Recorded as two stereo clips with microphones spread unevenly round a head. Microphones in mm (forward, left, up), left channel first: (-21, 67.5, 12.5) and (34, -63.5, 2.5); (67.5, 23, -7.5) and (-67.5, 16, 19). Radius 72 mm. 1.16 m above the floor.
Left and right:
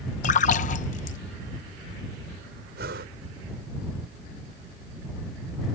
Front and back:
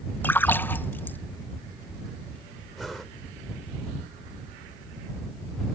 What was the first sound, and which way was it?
A splash, 75° left.